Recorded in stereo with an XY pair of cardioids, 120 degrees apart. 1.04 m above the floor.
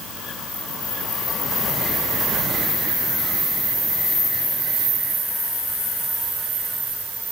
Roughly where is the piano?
I don't hear a piano.